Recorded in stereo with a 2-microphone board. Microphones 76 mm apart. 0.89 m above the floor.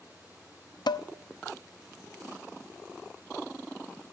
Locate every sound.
0.9 s dishes clattering: 80° left, 0.5 m